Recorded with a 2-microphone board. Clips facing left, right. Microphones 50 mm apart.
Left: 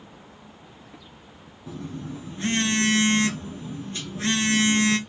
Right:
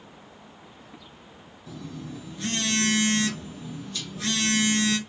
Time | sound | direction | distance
1.7 | a phone buzzing | 30° left (ahead or behind) | 0.7 m